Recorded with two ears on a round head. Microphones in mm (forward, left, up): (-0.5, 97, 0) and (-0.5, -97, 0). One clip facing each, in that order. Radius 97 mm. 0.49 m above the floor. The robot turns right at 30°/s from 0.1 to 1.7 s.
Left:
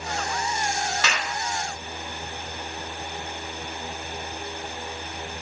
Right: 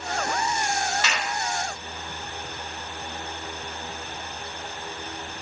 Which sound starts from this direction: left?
A clap, at 1.0 s.